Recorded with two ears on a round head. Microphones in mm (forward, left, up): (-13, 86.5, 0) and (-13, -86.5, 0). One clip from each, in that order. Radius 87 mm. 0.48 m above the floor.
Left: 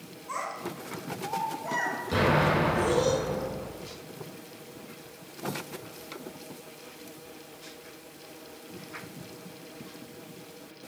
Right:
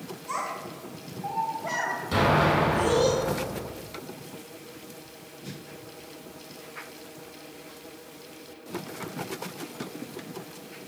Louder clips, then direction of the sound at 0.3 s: Right 2 dB; 70° right (ahead or behind).